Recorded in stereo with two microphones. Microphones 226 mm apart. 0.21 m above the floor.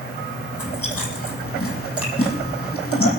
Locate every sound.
0.5 s chewing: 80° left, 4.5 m